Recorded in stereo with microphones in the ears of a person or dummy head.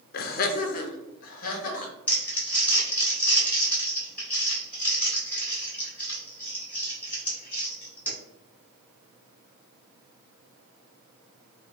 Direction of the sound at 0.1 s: 55° left (ahead or behind).